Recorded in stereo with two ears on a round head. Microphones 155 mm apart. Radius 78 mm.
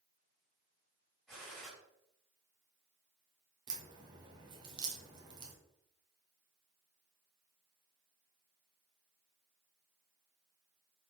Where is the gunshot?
Centre (ahead or behind), 3 m.